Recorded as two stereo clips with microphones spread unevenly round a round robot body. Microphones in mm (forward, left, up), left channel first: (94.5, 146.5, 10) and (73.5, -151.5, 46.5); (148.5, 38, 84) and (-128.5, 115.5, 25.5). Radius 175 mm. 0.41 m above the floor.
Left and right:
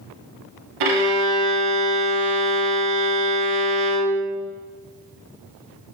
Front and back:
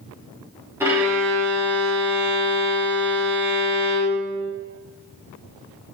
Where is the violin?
110° right, 1.3 m.